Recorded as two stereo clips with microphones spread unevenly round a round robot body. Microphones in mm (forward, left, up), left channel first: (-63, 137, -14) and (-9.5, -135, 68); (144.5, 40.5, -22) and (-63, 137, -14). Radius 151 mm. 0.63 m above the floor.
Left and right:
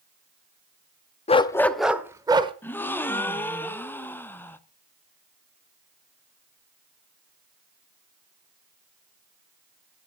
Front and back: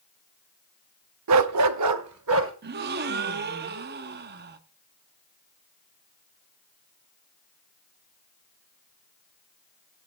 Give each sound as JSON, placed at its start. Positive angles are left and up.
{"t": 1.3, "sound": "a dog barking", "azimuth_deg": 170, "distance_m": 0.6}
{"t": 2.6, "sound": "a gasp", "azimuth_deg": 155, "distance_m": 0.8}